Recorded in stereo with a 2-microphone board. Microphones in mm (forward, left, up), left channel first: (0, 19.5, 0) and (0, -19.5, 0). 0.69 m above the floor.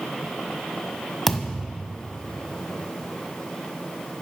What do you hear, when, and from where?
1.3 s a thud: 10° left (ahead or behind), 1.5 m